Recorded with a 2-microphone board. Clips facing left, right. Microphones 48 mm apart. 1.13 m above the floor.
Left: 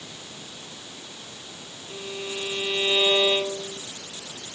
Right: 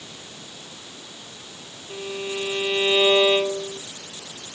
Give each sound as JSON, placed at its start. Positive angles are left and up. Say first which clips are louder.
{"t": 1.9, "sound": "a violin", "louder": "right 4 dB", "side_deg": -20}